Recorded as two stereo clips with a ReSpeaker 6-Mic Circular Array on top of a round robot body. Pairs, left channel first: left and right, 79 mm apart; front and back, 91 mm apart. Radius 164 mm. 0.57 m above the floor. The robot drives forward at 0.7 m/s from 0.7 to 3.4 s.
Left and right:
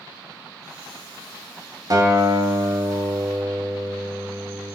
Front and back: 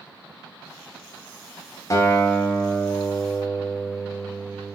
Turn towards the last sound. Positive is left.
turn(degrees=-80)